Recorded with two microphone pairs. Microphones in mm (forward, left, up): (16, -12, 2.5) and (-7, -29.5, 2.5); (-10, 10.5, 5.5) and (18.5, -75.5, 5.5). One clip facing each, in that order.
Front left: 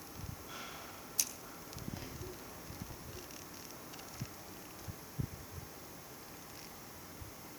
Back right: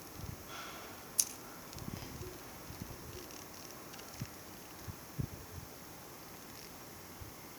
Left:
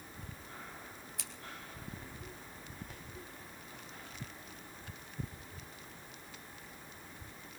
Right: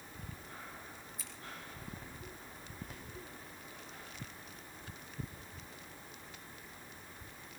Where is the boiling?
No boiling in this recording.